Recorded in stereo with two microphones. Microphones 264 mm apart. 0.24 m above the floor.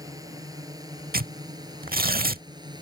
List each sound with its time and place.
0.0 s a drone: 15° right (ahead or behind)
1.1 s tearing paper: 35° right (ahead or behind)